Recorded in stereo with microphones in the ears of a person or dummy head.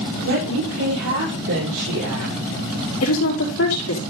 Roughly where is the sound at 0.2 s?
Right.